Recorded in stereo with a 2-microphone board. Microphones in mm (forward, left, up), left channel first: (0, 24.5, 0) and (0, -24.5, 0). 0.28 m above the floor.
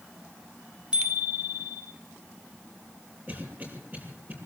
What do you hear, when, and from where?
0.9 s a bicycle bell: 20° right (ahead or behind), 8 m
3.3 s a cough: 35° right (ahead or behind), 8 m